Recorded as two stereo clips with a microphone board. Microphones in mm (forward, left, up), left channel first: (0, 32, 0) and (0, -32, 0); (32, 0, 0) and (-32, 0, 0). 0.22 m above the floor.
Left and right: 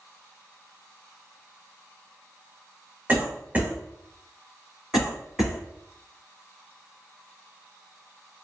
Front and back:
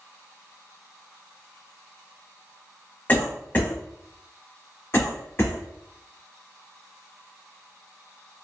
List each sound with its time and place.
3.1 s a cough: 45° right, 1.1 m
4.9 s a cough: 10° right, 1.2 m